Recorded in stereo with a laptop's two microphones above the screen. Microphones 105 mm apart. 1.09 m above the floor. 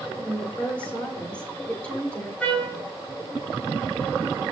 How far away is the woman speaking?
About 4 m.